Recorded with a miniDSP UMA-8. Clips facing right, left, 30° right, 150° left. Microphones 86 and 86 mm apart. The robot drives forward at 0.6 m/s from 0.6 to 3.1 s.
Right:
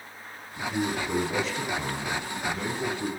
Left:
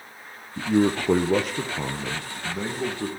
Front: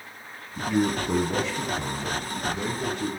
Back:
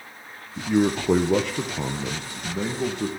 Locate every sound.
0.6 s a man speaking: 85° left, 0.7 m; by 3.1 s 155° left, 1.6 m